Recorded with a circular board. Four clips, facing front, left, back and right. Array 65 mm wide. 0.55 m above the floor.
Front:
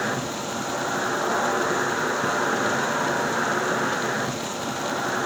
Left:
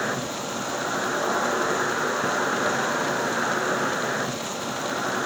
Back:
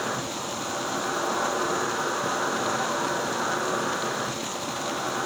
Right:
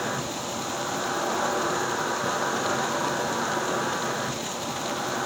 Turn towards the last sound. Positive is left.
turn(degrees=40)